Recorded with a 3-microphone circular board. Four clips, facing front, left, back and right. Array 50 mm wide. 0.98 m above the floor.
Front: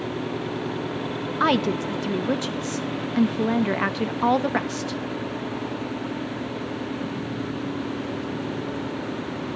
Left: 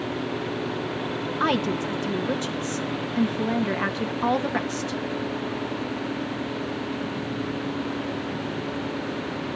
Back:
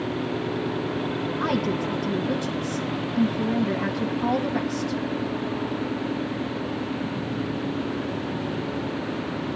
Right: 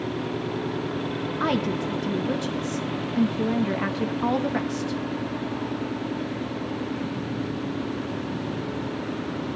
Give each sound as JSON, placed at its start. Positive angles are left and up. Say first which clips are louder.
{"t": 1.4, "sound": "a woman speaking", "louder": "left 1 dB, front 5 dB", "azimuth_deg": 15, "distance_m": 1.2}